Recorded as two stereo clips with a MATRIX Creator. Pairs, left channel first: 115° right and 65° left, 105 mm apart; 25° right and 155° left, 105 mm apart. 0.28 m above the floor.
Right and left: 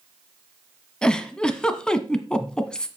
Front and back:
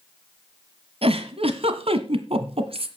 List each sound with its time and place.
1.0 s a giggle: 165° left, 1.3 m